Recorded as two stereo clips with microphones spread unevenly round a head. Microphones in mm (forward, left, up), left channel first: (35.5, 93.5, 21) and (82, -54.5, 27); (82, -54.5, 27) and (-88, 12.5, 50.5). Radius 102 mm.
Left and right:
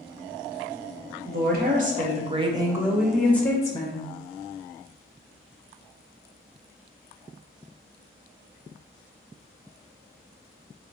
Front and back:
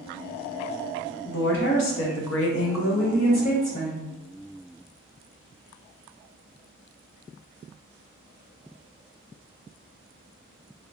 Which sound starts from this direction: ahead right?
A woman speaking, at 1.2 s.